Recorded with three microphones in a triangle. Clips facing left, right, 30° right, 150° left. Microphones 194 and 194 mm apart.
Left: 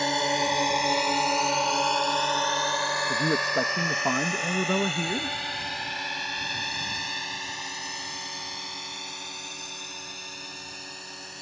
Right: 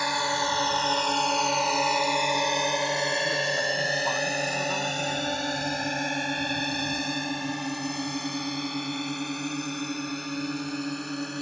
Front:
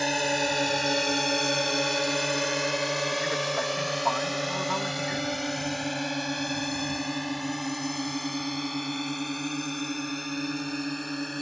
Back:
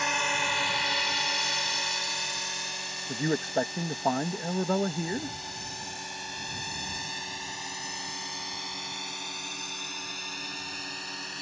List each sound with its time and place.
0.0 s a drone: 25° left; by 11.4 s 65° right
3.1 s a man speaking: 105° left